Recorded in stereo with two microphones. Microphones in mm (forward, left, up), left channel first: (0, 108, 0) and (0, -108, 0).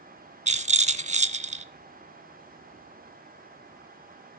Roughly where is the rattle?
Right.